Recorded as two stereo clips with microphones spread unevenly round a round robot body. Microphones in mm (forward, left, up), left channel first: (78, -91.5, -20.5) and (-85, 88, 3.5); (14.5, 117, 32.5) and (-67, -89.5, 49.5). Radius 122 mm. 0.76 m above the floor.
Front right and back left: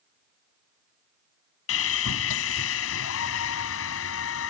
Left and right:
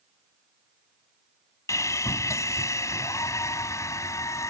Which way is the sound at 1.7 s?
10° right.